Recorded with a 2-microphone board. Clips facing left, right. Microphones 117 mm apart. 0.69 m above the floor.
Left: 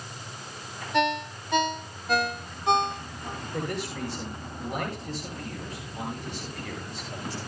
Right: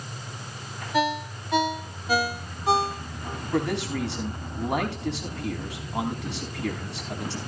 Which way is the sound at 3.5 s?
80° right.